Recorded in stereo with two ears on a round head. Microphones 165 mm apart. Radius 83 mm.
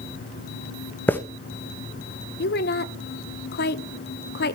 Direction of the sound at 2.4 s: 60° left (ahead or behind).